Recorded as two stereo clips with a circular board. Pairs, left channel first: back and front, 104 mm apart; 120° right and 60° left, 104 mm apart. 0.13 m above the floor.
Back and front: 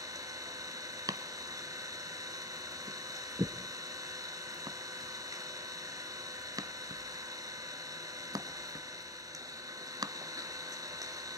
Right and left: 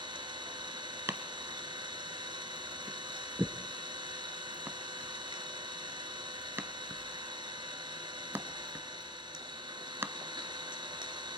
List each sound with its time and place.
0.0 s an engine running: 45° left, 1.7 m
1.1 s chopping: 10° left, 0.8 m